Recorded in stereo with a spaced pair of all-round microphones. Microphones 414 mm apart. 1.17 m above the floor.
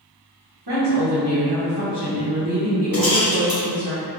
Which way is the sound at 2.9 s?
55° left (ahead or behind).